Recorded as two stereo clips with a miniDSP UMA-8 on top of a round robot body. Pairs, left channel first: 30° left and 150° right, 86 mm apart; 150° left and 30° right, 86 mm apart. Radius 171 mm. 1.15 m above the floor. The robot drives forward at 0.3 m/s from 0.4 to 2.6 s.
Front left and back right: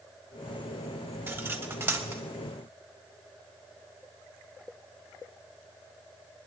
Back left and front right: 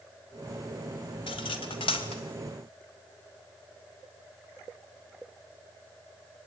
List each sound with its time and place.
1.3 s cutlery clinking: 145° left, 2.5 m; by 2.2 s 150° left, 2.5 m